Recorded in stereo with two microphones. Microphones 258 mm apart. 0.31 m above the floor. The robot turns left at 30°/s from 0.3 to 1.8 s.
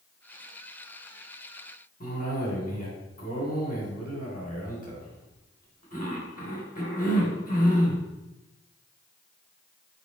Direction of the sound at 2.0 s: 35° left (ahead or behind).